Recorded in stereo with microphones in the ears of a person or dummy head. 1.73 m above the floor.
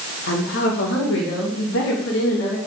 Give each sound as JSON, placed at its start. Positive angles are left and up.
{"t": 0.3, "sound": "a woman speaking", "side_deg": 70, "distance_m": 2.5}